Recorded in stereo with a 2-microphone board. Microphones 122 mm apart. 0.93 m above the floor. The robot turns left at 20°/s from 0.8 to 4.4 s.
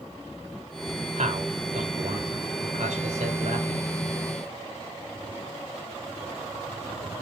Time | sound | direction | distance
1.2 | a man speaking | 70° right (ahead or behind) | 3.5 m